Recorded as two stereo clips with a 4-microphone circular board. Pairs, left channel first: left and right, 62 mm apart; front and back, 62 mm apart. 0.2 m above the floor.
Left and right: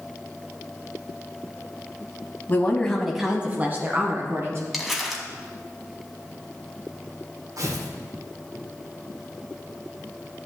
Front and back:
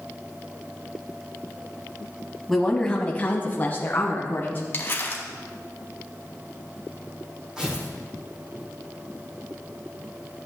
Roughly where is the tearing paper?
Right.